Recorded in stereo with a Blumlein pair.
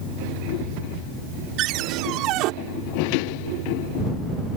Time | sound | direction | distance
1.6 | a cupboard door | 40° right | ?